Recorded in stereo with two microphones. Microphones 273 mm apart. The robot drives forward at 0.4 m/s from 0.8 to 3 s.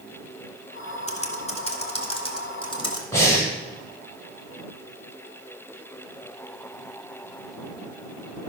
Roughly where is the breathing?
Centre.